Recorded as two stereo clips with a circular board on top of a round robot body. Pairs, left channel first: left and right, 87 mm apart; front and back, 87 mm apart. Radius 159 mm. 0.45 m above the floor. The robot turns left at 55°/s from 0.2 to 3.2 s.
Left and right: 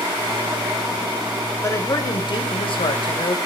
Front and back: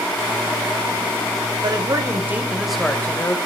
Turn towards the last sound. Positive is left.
turn(degrees=65)